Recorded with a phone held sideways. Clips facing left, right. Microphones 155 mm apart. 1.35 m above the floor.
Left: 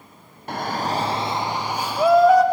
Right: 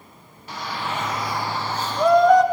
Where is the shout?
55° left (ahead or behind), 0.8 m; by 2.4 s 5° left (ahead or behind), 1.6 m.